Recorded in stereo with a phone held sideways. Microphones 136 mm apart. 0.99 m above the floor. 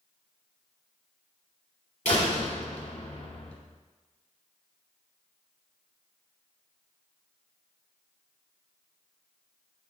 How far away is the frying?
I don't hear frying.